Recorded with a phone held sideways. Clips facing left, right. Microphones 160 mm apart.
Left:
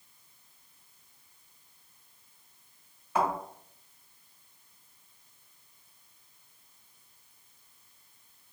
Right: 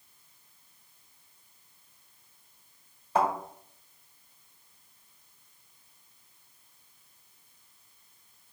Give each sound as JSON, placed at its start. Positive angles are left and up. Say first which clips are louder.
{"t": 3.1, "sound": "a thud", "louder": "right 2 dB", "side_deg": -35, "distance_m": 1.5}